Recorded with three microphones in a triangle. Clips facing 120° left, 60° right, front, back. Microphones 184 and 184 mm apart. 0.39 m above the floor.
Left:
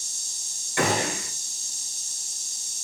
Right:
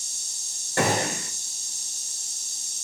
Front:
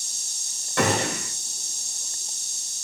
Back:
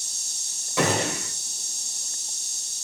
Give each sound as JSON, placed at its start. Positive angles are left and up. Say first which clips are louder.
{"t": 0.8, "sound": "a gunshot", "louder": "right 1 dB, even", "azimuth_deg": -90, "distance_m": 1.7}